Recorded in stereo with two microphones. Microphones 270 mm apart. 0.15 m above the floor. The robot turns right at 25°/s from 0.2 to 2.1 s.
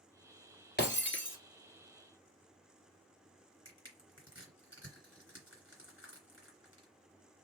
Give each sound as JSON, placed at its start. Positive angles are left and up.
{"t": 0.8, "sound": "breaking glass", "side_deg": 40, "distance_m": 1.5}
{"t": 3.6, "sound": "crushing", "side_deg": 45, "distance_m": 2.5}